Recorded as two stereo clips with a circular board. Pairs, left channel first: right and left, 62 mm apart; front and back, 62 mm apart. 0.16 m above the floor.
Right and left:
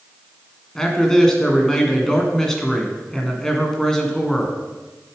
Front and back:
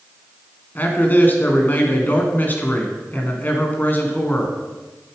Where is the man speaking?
15° right, 1.6 m.